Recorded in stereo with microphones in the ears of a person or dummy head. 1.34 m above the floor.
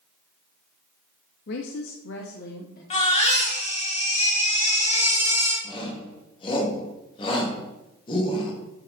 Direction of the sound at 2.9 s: 45° left (ahead or behind).